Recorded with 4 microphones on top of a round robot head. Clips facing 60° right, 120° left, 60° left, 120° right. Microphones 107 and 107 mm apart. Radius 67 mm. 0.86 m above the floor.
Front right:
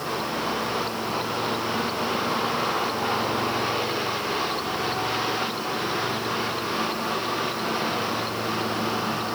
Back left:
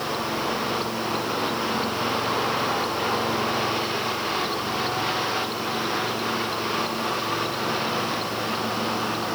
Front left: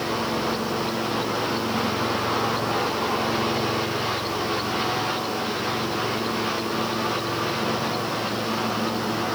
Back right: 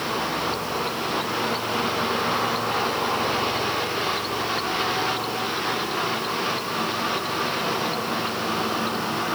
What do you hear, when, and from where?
Only background noise.